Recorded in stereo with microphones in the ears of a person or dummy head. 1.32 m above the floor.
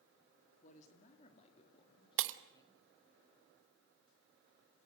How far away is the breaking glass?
About 1.0 m.